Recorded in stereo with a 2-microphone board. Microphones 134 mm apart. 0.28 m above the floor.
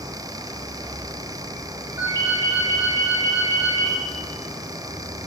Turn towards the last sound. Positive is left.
turn(degrees=-25)  # may be behind; listen again after turning